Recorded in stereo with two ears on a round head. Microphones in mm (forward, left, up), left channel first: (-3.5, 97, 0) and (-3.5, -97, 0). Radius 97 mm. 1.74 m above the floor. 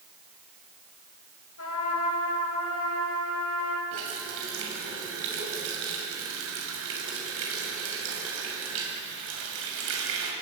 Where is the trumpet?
75° left (ahead or behind), 6 m.